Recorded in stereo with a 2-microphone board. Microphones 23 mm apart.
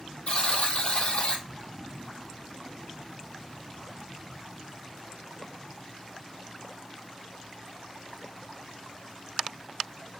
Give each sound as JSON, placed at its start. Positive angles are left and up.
{"t": 0.3, "sound": "a buzzer", "side_deg": 55, "distance_m": 0.6}